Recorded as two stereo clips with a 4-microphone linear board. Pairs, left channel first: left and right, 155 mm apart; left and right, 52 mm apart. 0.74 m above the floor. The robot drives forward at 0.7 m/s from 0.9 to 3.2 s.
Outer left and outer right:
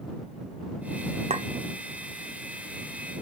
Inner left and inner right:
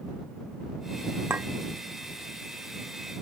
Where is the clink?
45° right (ahead or behind), 1.0 m; by 1.5 s 50° right (ahead or behind), 1.0 m.